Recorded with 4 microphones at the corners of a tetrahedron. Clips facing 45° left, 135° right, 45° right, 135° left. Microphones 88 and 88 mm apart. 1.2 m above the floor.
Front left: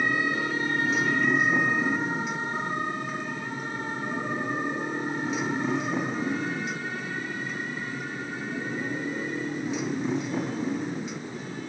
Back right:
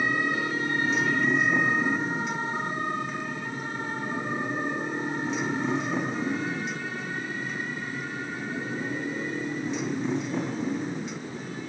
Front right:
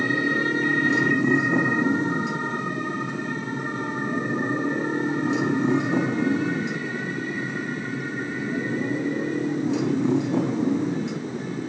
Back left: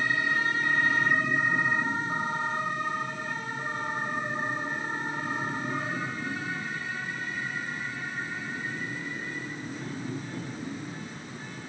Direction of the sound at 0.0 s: 45° right.